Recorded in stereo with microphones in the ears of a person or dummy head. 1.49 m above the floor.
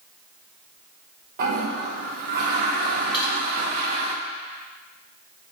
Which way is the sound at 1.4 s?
50° right (ahead or behind).